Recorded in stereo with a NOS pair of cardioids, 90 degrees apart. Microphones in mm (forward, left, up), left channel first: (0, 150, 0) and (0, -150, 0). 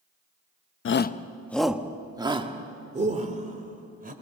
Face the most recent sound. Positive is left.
turn(degrees=-30)